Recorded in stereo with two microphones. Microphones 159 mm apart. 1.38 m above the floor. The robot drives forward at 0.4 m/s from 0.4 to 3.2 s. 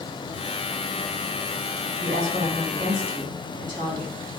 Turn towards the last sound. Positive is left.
turn(degrees=-55)  # may be behind; listen again after turning